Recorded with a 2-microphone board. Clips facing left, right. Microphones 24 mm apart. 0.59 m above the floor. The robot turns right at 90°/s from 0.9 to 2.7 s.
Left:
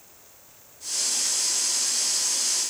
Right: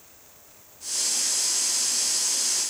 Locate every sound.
Only background noise.